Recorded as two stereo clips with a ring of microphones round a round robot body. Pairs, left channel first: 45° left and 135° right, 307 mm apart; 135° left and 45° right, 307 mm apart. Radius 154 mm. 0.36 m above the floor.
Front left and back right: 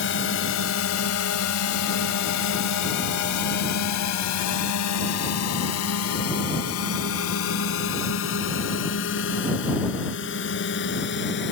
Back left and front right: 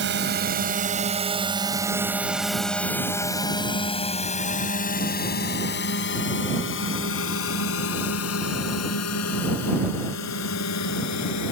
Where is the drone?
Straight ahead; by 11.5 s 100° left.